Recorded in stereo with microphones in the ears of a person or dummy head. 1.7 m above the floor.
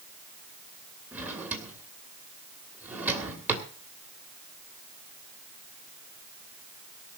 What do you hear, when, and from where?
1.1 s a drawer: 10° right (ahead or behind), 2.5 m